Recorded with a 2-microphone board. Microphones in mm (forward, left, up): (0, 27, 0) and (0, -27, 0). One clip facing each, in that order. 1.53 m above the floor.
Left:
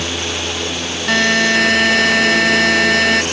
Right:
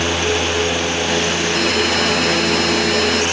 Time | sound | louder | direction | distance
1.1 | a buzzer | left 10 dB | 85° left | ?